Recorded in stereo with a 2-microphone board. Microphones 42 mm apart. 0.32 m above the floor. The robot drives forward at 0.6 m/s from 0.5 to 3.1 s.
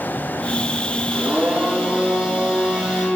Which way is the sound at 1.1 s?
30° right (ahead or behind).